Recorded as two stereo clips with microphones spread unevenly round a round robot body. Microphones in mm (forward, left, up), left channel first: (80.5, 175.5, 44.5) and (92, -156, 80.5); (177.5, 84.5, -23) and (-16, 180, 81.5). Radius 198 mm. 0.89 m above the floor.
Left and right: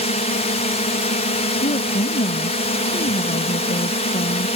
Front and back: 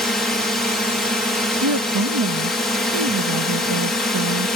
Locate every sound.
0.0 s a drone: 35° left
1.6 s a woman speaking: 160° left